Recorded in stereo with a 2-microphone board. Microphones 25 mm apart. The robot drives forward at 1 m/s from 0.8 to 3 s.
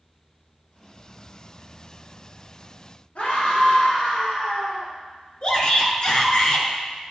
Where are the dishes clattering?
I don't hear dishes clattering.